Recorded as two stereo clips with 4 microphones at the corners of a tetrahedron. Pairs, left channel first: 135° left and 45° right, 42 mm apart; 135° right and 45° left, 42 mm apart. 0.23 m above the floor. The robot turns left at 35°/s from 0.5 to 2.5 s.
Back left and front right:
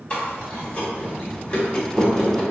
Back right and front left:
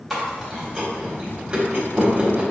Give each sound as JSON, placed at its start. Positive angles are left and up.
{"t": 0.1, "sound": "chewing", "azimuth_deg": 135, "distance_m": 1.3}